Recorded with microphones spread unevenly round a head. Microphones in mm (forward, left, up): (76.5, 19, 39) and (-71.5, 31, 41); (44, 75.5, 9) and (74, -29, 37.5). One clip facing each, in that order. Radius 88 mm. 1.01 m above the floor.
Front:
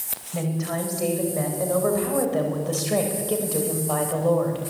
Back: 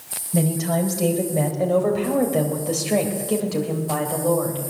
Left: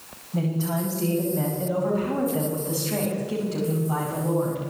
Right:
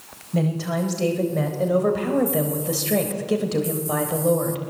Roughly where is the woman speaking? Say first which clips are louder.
Back 6 dB, right 3 dB; behind right.